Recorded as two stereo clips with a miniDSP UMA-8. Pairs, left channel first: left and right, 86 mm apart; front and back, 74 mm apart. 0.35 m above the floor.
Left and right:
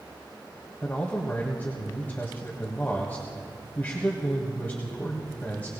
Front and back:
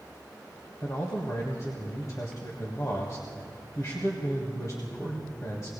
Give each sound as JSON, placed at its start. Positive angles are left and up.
{"t": 0.8, "sound": "a man speaking", "azimuth_deg": 25, "distance_m": 1.7}